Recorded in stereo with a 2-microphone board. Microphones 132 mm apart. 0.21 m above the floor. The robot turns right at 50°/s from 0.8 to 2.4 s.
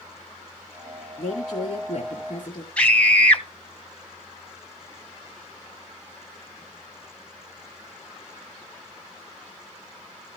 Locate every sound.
1.2 s a woman speaking: 70° left, 2 m; by 2.7 s 130° left, 2 m
2.8 s a scream: 10° left (ahead or behind), 1.5 m